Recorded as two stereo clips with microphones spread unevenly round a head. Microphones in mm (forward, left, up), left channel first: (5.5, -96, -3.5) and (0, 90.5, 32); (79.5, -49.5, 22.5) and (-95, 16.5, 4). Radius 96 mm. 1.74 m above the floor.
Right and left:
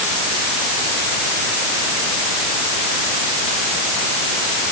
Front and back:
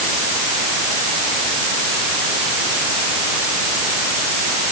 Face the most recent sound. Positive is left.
No sound to turn to.